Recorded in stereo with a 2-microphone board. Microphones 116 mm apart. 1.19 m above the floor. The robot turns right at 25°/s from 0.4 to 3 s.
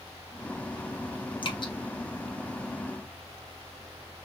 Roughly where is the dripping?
Left.